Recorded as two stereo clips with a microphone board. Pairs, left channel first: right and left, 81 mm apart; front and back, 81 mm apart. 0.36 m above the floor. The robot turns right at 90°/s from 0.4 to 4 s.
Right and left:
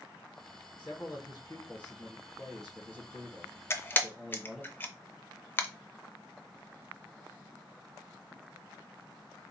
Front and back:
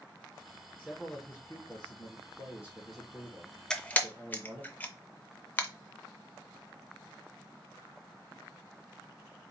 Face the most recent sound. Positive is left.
turn(degrees=-50)